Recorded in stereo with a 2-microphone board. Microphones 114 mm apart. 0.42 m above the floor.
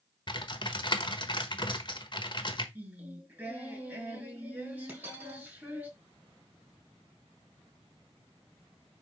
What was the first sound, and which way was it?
Typing on a keyboard, 45° left (ahead or behind).